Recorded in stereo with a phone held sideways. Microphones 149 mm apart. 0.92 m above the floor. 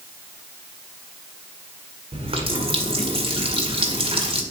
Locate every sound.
2.1 s a running tap: 40° right (ahead or behind), 1.8 m